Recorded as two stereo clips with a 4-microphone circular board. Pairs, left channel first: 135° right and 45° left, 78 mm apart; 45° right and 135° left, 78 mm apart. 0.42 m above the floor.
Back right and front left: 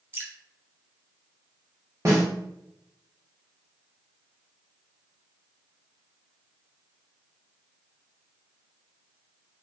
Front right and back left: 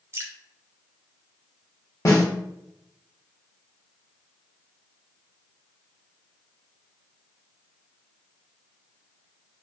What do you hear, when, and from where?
0.1 s dripping: 95° left, 0.6 m
2.0 s a snare drum: 5° right, 1.0 m